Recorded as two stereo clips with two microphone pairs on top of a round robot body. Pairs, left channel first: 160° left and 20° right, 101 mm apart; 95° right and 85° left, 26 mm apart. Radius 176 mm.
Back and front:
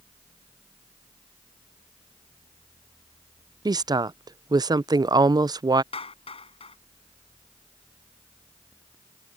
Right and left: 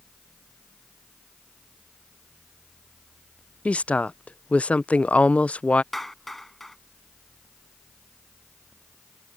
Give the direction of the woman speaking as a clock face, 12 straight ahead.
2 o'clock.